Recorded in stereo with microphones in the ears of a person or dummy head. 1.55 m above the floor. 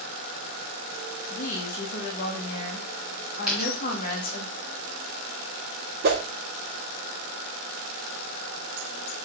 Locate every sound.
1.3 s a woman speaking: 50° left (ahead or behind), 1.9 m
3.5 s a dropped coin: centre (ahead or behind), 3.5 m
6.0 s a whoosh: 55° right (ahead or behind), 1.3 m